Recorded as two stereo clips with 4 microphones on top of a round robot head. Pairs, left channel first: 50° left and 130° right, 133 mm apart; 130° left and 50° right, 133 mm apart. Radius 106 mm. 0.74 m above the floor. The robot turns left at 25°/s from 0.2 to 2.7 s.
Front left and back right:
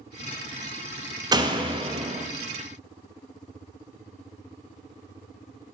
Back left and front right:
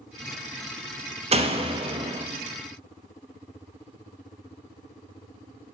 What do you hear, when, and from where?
1.3 s a door slam: 75° right, 0.9 m; by 2.3 s 100° right, 0.9 m